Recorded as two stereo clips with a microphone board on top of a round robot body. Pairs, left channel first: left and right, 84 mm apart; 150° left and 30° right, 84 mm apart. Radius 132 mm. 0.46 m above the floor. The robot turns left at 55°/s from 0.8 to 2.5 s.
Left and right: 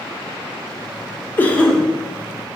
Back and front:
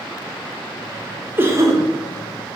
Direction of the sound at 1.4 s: 30° left.